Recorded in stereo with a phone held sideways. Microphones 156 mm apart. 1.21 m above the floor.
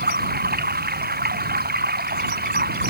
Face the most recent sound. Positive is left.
turn(degrees=-85)